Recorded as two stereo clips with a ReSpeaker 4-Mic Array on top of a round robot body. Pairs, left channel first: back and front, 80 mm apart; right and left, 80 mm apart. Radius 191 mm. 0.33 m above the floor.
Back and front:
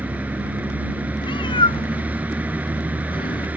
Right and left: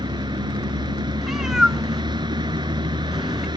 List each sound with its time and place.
0.0 s a vehicle: 70° left
1.2 s a cat meowing: 175° left